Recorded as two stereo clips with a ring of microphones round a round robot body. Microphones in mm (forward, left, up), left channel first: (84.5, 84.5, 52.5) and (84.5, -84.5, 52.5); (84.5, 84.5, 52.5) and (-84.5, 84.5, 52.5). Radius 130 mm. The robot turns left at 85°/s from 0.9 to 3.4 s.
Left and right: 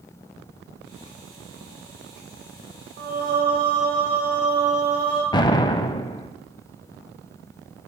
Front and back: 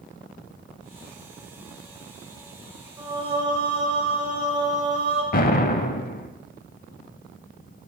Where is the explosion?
30° left, 0.5 m.